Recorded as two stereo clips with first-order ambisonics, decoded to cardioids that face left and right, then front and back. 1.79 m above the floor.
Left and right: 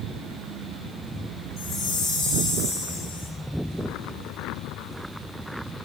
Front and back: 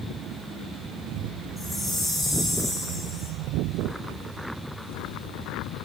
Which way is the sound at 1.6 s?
90° left.